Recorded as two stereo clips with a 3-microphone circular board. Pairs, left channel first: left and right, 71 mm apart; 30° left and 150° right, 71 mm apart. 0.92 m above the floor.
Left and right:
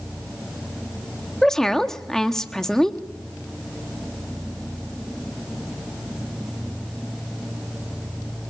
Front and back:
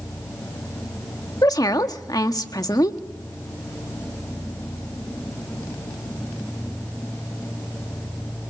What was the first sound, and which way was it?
A woman speaking, 5° left.